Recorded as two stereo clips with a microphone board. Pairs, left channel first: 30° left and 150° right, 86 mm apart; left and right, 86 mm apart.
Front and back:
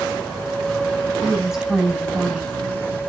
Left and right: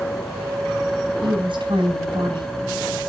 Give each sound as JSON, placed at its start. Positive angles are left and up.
{"t": 1.2, "sound": "a woman speaking", "azimuth_deg": -65, "distance_m": 5.5}